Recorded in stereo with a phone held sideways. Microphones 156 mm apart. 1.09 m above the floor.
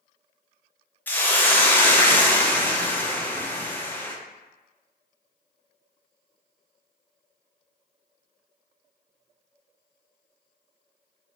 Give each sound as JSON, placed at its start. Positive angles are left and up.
{"t": 1.1, "sound": "a hiss", "side_deg": 10, "distance_m": 0.5}